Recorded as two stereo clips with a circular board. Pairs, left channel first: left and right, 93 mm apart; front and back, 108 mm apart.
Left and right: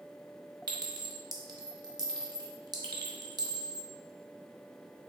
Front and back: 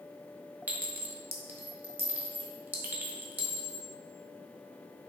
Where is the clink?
115° right, 0.5 m.